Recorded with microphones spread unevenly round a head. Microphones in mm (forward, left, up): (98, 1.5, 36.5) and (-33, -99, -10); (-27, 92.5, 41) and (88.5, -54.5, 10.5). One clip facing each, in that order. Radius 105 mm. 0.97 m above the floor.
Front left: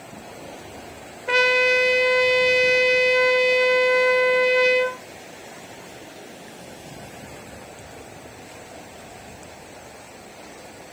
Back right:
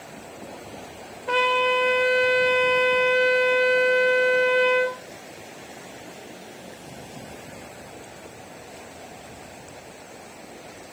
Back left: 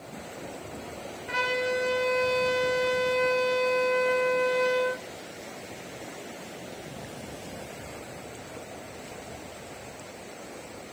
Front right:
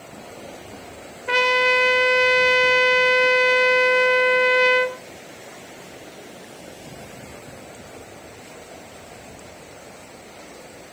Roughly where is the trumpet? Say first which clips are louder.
Front left 2 dB, front right 7 dB; ahead right.